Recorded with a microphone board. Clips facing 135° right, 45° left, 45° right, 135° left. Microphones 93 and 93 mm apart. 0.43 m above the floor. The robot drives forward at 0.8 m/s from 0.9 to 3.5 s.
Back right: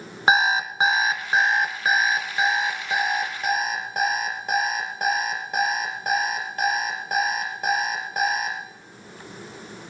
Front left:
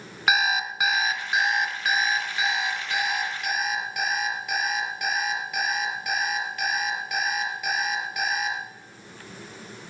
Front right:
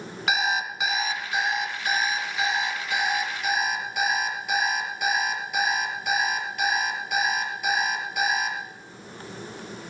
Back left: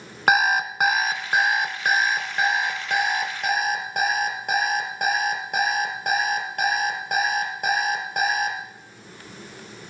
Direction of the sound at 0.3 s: 170° left.